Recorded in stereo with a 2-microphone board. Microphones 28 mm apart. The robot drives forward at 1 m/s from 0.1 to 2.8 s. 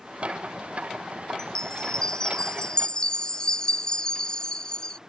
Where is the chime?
25° left (ahead or behind); by 5.0 s 30° left (ahead or behind).